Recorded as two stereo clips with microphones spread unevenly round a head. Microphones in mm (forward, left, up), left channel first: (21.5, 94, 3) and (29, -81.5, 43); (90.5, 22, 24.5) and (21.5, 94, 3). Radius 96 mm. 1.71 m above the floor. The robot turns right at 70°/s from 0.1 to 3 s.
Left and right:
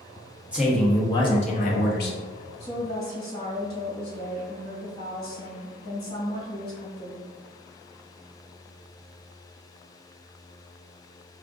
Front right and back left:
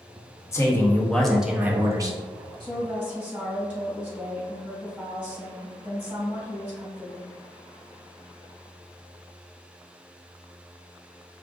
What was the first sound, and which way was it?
A man speaking, 25° right.